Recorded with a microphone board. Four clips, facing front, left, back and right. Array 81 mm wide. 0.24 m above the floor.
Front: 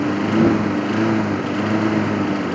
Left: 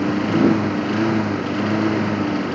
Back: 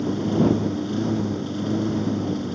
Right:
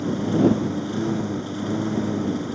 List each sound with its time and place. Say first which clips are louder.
0.0 s a lawn mower: left 3 dB, front 5 dB; 35° left